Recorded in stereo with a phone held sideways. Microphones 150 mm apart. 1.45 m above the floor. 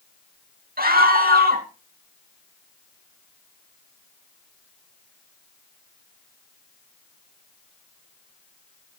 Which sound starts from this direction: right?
A scream, at 0.8 s.